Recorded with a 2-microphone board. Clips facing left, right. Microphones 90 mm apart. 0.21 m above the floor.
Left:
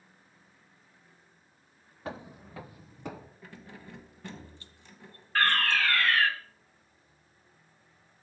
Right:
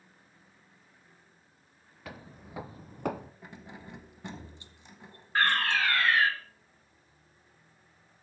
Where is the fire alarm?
20° right (ahead or behind), 2 m.